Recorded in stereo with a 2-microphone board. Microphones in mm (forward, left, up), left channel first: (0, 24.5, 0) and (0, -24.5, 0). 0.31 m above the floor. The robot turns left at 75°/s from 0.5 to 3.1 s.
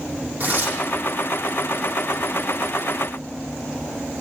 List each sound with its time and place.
0.4 s tearing paper: 35° right (ahead or behind), 6 m; by 0.8 s 60° right (ahead or behind), 6 m